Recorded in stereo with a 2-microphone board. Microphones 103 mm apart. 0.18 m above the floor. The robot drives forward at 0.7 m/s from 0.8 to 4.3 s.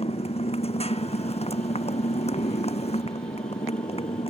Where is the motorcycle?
75° left (ahead or behind); by 4.3 s 70° left (ahead or behind).